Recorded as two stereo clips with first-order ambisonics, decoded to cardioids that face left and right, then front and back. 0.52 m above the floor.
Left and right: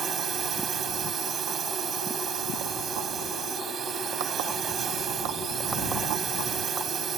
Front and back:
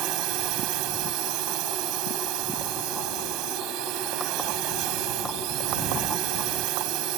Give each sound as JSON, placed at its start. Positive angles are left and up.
{"t": 0.0, "sound": "a drone", "azimuth_deg": -155}